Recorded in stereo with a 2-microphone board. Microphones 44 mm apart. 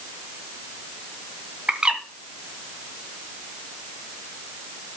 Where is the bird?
20° right (ahead or behind), 1.6 m.